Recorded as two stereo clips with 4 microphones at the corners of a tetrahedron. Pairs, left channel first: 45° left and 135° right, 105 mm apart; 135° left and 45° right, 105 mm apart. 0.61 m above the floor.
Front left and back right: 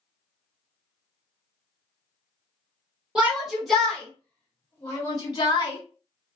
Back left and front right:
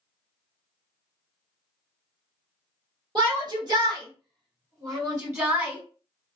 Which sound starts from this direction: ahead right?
A shout, at 3.1 s.